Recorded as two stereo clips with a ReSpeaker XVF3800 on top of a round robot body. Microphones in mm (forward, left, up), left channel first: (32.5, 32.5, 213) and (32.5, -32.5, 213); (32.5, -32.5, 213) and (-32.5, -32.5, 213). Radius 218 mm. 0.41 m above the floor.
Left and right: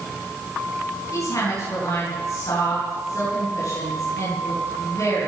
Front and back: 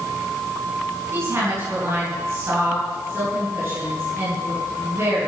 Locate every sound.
1.1 s a woman speaking: 130° left, 6 m